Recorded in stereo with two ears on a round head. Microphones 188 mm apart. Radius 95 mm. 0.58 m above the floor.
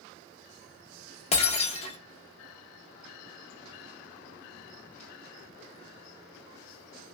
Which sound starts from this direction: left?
Breaking glass, at 1.3 s.